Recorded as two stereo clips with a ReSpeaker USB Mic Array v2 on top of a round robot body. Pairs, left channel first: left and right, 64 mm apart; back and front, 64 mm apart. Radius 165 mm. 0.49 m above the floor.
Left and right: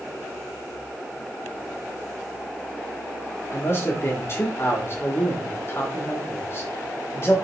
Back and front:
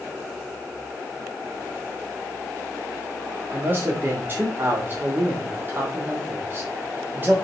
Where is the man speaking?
50° left, 1.9 m.